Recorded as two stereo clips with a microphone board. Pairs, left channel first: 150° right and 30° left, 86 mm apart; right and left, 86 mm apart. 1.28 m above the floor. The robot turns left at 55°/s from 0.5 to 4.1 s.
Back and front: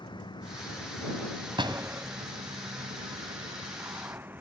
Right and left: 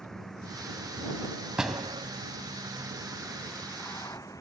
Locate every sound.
0.0 s a vehicle: 175° right; by 4.4 s 40° right
1.6 s a door slam: 10° left; by 1.9 s 10° right